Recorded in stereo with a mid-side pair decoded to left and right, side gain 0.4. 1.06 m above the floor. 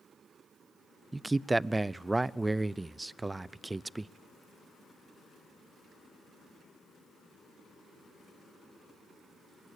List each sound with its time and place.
1.1 s a man speaking: 20° right, 0.5 m